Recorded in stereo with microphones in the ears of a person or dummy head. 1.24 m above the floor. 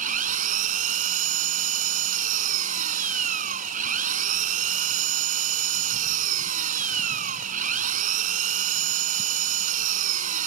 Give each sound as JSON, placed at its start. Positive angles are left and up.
{"t": 0.0, "sound": "an engine running", "side_deg": -50}